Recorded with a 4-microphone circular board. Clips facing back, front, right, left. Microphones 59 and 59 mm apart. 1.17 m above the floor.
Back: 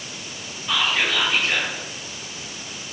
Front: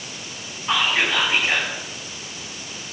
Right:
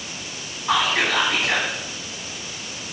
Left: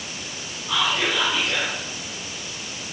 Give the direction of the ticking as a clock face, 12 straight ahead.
No ticking in this recording.